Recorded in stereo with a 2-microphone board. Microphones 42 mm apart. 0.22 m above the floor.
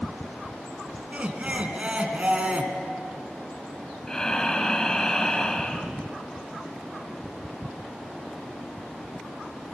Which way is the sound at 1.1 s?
30° right (ahead or behind).